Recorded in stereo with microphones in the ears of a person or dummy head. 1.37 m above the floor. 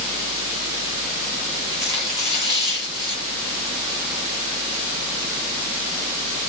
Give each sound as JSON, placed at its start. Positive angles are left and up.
{"t": 1.7, "sound": "tearing paper", "side_deg": 30, "distance_m": 1.9}